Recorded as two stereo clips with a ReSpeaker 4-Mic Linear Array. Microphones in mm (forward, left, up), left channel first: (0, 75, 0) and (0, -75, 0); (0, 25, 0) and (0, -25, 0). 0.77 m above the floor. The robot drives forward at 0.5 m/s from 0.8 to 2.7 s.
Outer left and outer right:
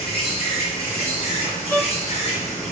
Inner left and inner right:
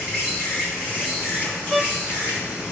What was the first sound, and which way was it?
An insect, 40° left (ahead or behind).